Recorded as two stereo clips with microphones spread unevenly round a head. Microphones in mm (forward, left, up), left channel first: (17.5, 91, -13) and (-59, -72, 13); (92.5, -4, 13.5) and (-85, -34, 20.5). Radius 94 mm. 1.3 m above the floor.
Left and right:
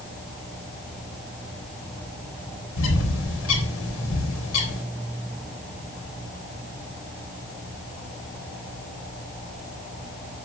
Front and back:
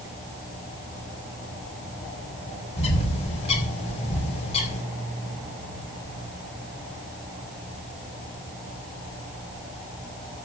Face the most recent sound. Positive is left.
turn(degrees=70)